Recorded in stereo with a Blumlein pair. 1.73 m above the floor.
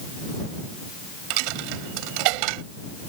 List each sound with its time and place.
1.3 s a dropped coin: 45° right